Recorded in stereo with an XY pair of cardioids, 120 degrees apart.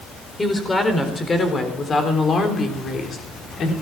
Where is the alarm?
I don't hear an alarm.